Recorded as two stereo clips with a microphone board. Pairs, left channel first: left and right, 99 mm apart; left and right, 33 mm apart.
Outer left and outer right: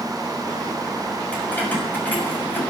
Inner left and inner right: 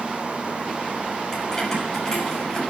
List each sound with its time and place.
1.3 s keys jangling: 15° left (ahead or behind), 6.5 m; by 2.6 s 20° left (ahead or behind), 7 m